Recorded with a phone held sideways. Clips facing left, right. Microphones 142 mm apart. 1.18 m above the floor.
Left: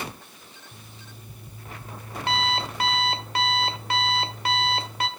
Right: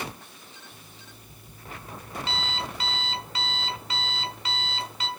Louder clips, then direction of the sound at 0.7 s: Left 2 dB; 60° left (ahead or behind).